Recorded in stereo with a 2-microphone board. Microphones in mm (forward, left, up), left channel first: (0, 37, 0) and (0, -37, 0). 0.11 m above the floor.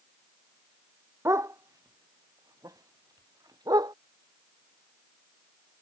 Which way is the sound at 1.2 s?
40° right (ahead or behind).